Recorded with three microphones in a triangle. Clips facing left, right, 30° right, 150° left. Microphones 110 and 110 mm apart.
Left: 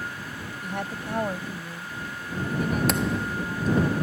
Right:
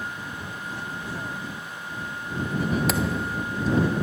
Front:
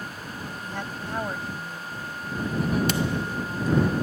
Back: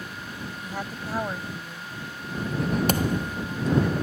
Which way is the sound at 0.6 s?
70° left.